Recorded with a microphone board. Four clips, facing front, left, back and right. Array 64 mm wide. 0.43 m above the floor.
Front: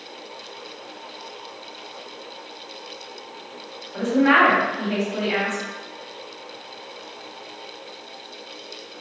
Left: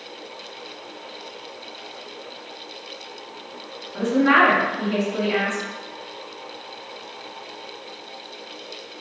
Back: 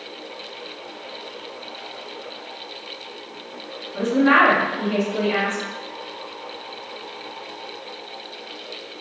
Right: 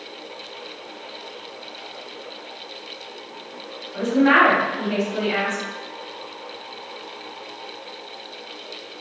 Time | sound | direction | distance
3.9 | a woman speaking | 35° right | 1.9 m